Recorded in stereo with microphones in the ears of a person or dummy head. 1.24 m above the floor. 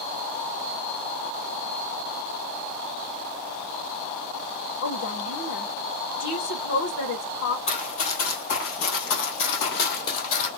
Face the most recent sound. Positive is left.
turn(degrees=50)  # may be behind; listen again after turning